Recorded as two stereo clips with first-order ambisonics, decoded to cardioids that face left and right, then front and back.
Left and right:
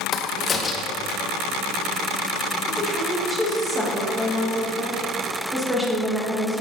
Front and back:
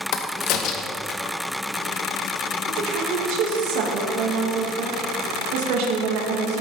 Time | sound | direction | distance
0.1 | a crack | 25° left | 0.9 m
2.7 | a woman speaking | 175° right | 1.8 m